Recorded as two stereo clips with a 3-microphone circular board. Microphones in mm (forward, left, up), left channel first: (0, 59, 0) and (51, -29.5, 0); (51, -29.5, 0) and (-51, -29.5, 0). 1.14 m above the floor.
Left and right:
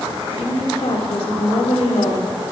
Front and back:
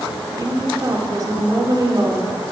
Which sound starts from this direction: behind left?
A woman speaking, at 0.4 s.